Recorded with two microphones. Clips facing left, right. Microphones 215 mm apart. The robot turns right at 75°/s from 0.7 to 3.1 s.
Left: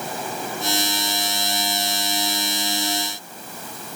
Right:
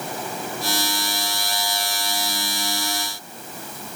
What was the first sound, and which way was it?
Only background noise.